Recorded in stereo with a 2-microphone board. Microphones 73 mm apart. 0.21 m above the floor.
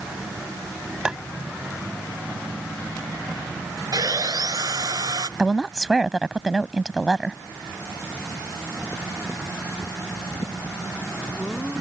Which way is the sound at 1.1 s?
10° right (ahead or behind).